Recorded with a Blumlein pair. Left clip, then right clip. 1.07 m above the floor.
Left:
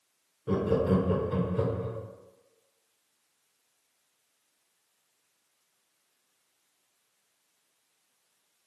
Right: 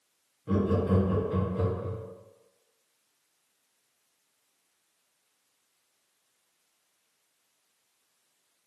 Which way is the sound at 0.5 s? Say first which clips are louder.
Left 2 dB; 15° left.